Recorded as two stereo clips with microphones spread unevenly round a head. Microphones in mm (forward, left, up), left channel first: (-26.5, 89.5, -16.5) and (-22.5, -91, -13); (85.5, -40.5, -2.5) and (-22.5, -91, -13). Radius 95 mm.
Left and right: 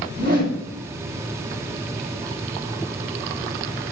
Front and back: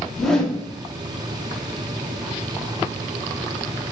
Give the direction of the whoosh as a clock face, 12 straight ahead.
2 o'clock.